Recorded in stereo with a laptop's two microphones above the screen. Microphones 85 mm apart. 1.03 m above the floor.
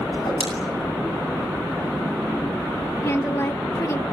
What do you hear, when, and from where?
0.1 s a whoosh: 65° left (ahead or behind), 9.5 m
3.0 s a woman speaking: 35° left (ahead or behind), 1.1 m